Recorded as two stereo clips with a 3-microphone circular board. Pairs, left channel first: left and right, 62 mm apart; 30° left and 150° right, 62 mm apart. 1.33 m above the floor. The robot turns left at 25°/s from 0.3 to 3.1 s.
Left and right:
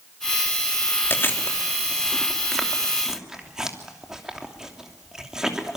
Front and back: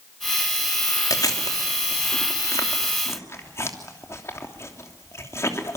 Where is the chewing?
40° left, 3 m; by 5.8 s 10° right, 3 m.